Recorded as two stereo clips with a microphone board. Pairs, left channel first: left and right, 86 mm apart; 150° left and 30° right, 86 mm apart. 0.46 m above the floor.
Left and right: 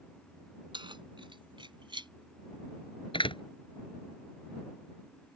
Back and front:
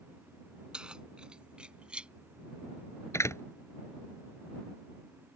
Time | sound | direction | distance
0.7 | keys jangling | 110° right | ?
3.1 | a door slam | 95° left | ?